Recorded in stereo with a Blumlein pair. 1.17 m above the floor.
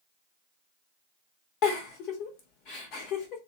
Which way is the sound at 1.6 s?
40° left.